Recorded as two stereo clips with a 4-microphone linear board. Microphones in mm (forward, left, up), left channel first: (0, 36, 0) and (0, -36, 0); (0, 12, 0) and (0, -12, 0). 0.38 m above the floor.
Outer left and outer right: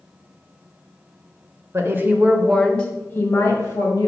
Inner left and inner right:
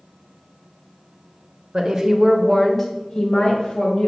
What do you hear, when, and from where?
1.7 s a woman speaking: 40° right (ahead or behind), 1.1 m; by 4.1 s 50° left (ahead or behind), 1.9 m